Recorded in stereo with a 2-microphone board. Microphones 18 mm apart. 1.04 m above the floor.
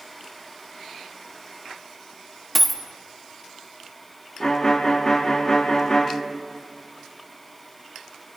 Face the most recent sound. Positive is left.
turn(degrees=30)  # may be behind; listen again after turning